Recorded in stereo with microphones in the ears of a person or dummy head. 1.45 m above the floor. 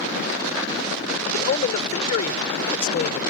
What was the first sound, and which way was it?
A man speaking, 40° left (ahead or behind).